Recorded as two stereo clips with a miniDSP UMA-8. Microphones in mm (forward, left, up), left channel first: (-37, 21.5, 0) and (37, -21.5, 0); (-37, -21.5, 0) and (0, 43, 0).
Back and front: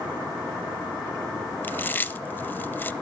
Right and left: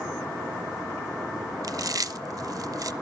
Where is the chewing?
85° left, 0.5 m.